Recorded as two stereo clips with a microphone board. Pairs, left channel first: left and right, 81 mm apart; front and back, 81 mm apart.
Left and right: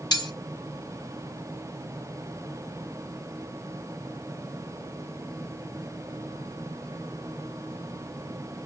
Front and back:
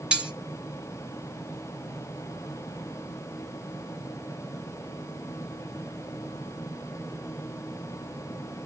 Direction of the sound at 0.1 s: 105° left.